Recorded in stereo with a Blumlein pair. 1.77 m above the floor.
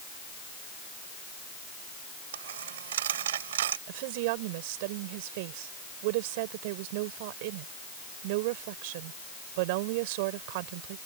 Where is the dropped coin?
60° right.